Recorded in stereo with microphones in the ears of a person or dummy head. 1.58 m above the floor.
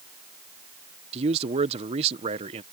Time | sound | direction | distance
1.1 | a man speaking | 25° right (ahead or behind) | ?